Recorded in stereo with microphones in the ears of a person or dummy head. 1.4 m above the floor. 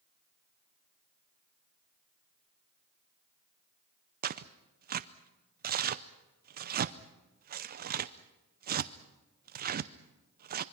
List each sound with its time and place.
4.2 s tearing paper: 45° right (ahead or behind), 0.6 m